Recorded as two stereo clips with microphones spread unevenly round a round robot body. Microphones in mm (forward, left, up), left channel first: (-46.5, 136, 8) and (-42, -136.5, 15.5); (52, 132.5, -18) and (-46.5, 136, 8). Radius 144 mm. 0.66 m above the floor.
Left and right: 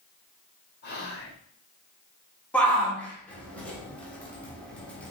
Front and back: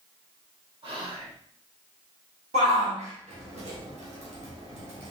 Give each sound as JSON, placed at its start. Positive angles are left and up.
{"t": 0.8, "sound": "whispering", "azimuth_deg": 145, "distance_m": 2.0}
{"t": 2.5, "sound": "a shout", "azimuth_deg": 175, "distance_m": 1.3}